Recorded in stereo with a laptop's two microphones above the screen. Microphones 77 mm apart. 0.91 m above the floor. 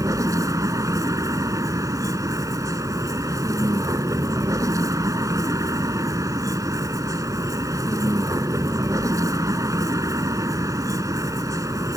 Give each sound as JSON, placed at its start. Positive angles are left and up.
{"t": 0.0, "sound": "a vehicle", "side_deg": -45}